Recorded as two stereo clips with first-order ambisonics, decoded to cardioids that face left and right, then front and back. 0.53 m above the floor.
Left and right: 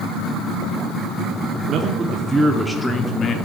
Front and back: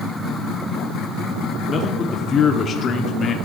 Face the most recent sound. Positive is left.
turn(degrees=55)